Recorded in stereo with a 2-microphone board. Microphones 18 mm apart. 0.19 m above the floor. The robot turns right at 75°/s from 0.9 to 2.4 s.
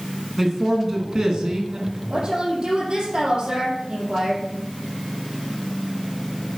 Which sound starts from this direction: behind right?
A man speaking, at 0.4 s.